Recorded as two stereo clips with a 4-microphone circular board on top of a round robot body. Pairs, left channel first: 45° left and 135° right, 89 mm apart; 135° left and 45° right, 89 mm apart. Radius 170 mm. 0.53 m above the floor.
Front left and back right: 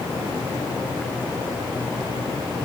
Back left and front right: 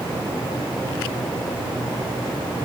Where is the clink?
I don't hear a clink.